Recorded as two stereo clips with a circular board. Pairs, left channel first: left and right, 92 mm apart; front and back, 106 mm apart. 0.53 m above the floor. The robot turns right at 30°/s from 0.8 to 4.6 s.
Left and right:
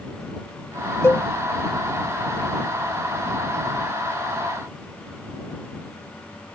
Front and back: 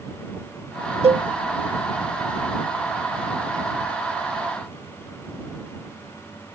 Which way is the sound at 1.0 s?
155° left.